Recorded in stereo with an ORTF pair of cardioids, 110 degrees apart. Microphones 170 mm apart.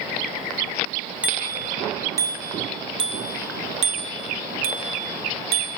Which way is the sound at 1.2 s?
10° right.